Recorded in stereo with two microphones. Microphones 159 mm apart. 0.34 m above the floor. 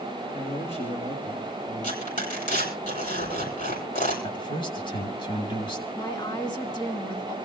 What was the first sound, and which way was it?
A man speaking, 45° left (ahead or behind).